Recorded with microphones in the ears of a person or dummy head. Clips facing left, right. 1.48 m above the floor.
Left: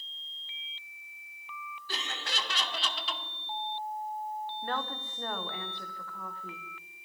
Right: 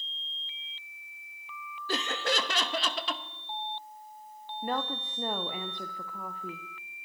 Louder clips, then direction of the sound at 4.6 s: Right 8 dB; 20° right (ahead or behind).